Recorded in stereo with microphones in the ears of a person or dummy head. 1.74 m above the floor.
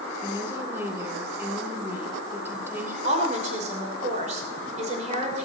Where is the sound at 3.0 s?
45° right (ahead or behind), 6 m.